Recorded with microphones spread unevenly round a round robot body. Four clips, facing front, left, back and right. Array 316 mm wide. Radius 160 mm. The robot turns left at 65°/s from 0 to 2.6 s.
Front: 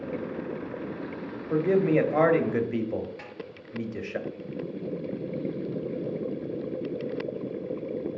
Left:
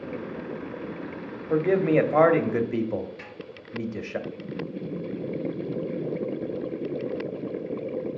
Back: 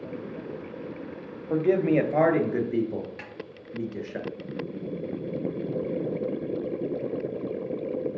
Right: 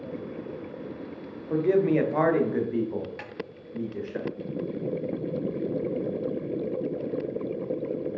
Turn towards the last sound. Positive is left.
turn(degrees=-130)